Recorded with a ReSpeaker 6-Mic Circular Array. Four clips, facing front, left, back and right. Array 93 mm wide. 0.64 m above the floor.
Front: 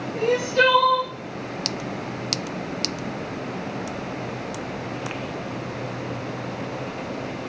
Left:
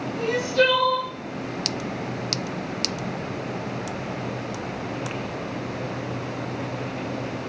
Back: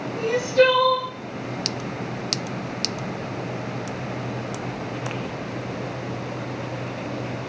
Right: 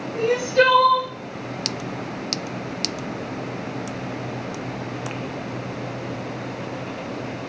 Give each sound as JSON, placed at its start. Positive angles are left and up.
{"t": 0.1, "sound": "crying", "azimuth_deg": -65, "distance_m": 1.1}